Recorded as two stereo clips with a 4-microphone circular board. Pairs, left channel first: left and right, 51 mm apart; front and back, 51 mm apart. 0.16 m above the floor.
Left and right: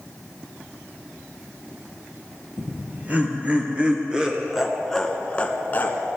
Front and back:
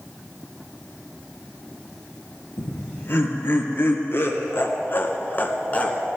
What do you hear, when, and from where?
2.6 s laughter: 40° right, 3 m; by 6.0 s 60° left, 1.6 m